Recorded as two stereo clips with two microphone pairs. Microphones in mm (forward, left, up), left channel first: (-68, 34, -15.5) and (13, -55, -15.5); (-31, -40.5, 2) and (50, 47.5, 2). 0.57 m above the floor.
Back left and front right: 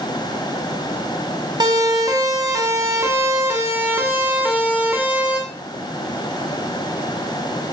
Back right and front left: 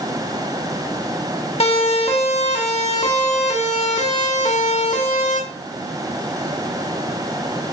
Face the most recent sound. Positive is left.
turn(degrees=-125)